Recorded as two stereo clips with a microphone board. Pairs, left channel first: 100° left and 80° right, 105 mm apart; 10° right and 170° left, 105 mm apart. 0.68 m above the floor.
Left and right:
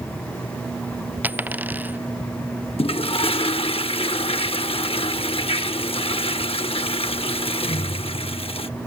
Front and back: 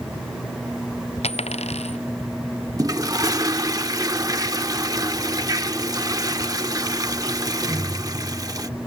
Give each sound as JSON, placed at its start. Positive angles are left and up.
{"t": 1.2, "sound": "a dropped coin", "azimuth_deg": -5}
{"t": 2.8, "sound": "a toilet flushing", "azimuth_deg": 120}